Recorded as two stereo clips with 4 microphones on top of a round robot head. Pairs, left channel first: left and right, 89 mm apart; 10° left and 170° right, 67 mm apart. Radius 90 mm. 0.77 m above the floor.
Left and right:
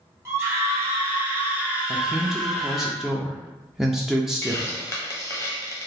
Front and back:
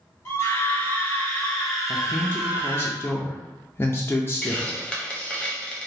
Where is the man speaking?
5° right, 0.5 m.